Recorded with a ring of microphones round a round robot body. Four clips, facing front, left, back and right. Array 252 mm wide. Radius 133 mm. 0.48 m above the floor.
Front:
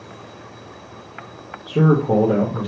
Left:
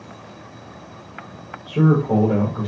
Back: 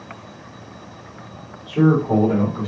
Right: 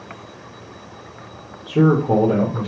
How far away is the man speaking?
About 1.3 m.